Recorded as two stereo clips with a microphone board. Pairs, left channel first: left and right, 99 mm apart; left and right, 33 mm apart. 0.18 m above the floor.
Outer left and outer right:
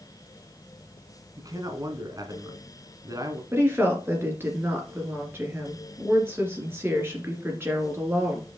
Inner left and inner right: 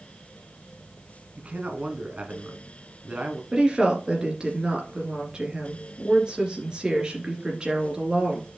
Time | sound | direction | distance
1.4 | a man speaking | 40° right (ahead or behind) | 1.5 m
3.5 | a woman speaking | 25° right (ahead or behind) | 2.5 m